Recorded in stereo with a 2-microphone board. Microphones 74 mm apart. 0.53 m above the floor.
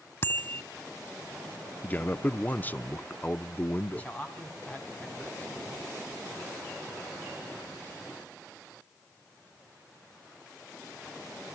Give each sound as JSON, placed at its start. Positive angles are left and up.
{"t": 0.2, "sound": "a bicycle bell", "side_deg": 35, "distance_m": 2.5}
{"t": 1.8, "sound": "a man speaking", "side_deg": 25, "distance_m": 0.6}
{"t": 3.9, "sound": "a man speaking", "side_deg": 20, "distance_m": 4.5}